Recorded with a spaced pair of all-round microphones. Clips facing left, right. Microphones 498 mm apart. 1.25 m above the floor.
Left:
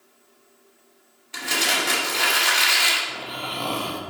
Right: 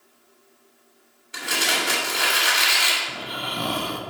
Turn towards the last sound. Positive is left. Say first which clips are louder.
# right 1 dB
turn(degrees=-35)  # may be behind; listen again after turning